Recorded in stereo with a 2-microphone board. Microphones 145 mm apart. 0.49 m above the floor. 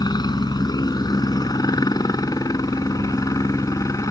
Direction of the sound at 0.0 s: 25° left (ahead or behind).